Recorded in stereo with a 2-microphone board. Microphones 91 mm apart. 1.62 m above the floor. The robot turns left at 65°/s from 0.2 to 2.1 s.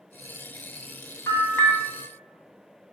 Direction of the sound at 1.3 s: 35° left (ahead or behind).